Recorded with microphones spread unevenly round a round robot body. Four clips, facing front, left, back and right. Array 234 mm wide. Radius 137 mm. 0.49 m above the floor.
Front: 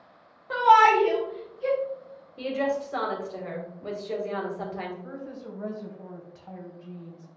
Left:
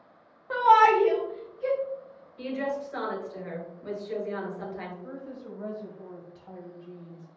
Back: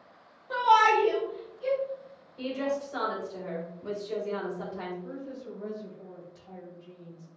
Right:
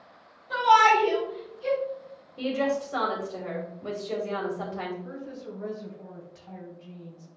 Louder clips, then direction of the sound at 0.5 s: Even, front 4 dB; 15° left.